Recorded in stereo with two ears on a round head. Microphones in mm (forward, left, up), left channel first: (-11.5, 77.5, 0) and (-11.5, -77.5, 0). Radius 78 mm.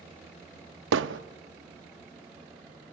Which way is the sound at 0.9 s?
75° right (ahead or behind).